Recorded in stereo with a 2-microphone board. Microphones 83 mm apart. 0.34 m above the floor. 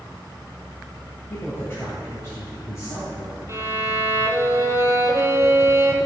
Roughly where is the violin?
Right.